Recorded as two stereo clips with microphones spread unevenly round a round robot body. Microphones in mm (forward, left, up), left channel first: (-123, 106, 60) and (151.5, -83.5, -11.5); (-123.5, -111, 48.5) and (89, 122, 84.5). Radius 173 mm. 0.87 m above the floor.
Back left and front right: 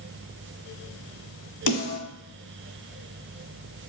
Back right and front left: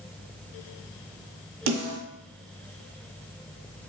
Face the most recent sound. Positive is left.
turn(degrees=95)